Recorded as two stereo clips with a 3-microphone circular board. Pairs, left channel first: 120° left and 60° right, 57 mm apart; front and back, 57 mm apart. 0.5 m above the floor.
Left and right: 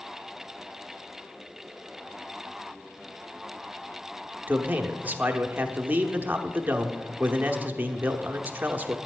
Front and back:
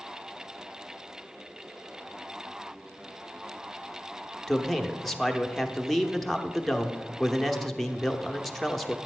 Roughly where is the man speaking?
Right.